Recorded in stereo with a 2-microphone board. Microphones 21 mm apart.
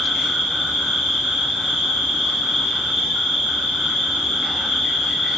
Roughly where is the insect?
Right.